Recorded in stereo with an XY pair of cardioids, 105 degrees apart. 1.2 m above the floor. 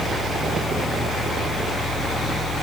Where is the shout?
No shout in this recording.